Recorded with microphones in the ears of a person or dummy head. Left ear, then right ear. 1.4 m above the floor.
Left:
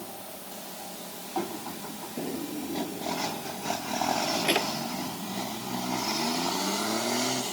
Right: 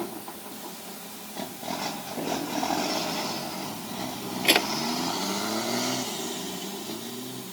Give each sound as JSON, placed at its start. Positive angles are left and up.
{"t": 2.2, "sound": "a drawer", "side_deg": -35}